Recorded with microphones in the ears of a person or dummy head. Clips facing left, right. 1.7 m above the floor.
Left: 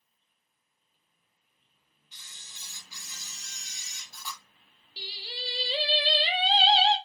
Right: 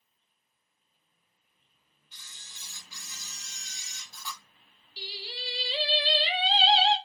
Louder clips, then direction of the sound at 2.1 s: Even; 5° left (ahead or behind).